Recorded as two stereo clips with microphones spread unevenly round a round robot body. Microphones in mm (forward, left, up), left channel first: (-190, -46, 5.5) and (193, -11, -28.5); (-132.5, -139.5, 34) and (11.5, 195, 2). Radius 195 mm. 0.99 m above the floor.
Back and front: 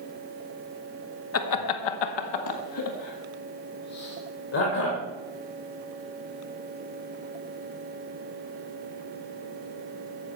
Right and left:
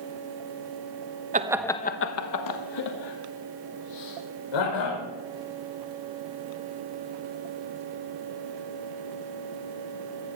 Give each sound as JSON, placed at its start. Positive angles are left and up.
{"t": 1.3, "sound": "laughter", "azimuth_deg": 130, "distance_m": 1.2}